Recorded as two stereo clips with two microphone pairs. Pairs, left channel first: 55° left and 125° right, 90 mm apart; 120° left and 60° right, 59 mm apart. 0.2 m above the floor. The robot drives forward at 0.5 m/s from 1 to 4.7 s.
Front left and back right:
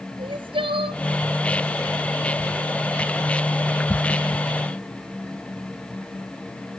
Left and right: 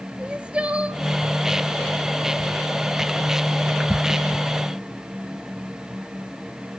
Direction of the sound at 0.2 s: 135° right.